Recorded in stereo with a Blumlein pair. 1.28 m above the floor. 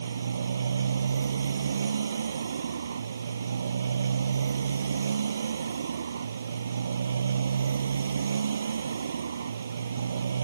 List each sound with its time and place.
0.0 s a motorcycle: 70° right